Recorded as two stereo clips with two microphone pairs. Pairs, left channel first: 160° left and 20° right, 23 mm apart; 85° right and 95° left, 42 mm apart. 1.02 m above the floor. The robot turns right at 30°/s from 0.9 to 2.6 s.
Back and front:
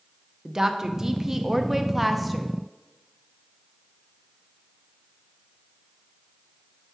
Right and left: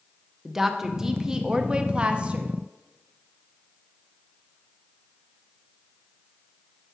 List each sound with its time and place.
0.5 s a woman speaking: 25° left, 0.5 m; by 2.5 s 70° left, 0.5 m